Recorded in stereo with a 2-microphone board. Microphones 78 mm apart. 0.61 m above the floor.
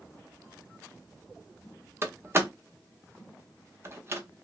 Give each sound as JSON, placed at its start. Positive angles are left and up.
{"t": 2.0, "sound": "a door slam", "side_deg": -30, "distance_m": 0.8}